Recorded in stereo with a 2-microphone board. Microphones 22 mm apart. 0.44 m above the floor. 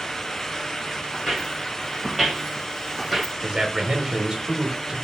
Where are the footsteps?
5° right (ahead or behind), 2 m.